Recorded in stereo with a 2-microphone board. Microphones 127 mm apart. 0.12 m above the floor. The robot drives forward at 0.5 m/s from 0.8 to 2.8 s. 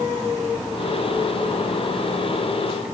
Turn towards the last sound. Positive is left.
No sound to turn to.